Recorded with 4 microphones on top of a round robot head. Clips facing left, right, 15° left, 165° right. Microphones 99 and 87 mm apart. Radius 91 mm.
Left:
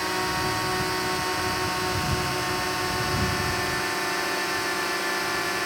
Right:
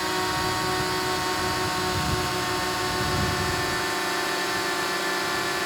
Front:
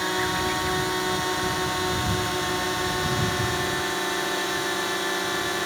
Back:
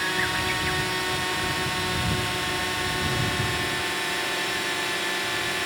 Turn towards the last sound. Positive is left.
turn(degrees=-10)